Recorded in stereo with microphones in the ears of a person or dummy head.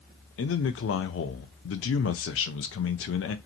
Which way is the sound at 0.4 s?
65° left (ahead or behind).